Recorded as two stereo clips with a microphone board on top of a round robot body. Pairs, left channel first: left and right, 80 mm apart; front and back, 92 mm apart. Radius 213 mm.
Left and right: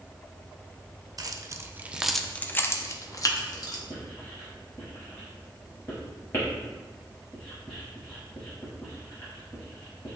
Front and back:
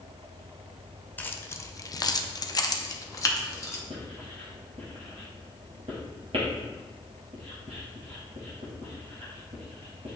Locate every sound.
1.2 s keys jangling: 65° right, 0.7 m; by 3.8 s 60° left, 1.1 m
3.9 s writing: 155° left, 0.6 m